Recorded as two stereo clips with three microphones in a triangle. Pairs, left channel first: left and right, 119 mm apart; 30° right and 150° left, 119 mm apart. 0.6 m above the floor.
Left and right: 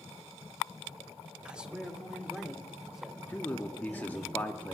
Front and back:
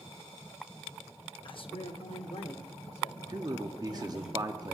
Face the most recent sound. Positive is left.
turn(degrees=155)